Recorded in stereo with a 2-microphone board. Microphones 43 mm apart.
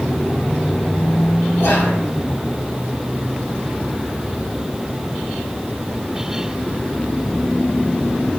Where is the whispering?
85° left, 3 m.